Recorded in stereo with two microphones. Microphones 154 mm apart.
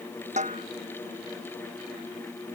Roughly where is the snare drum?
Right.